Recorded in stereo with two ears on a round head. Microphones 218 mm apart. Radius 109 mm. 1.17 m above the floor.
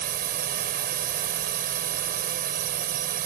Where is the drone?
35° right (ahead or behind).